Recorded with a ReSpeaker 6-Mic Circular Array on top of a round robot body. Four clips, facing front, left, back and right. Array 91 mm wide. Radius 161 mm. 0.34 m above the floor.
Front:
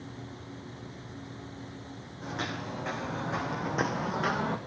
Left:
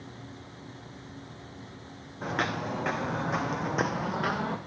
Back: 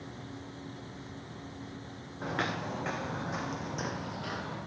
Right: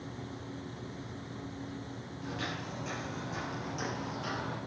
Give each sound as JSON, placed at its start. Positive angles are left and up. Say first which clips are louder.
{"t": 2.2, "sound": "footsteps", "louder": "left 9 dB, back 2 dB", "azimuth_deg": 115, "distance_m": 2.0}